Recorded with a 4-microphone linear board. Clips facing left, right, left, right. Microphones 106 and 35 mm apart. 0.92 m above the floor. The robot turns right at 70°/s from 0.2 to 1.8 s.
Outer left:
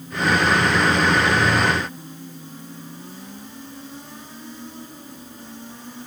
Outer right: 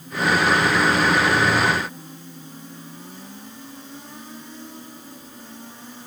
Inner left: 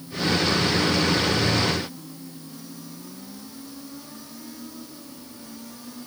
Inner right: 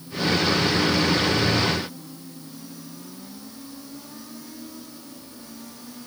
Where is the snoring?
No snoring in this recording.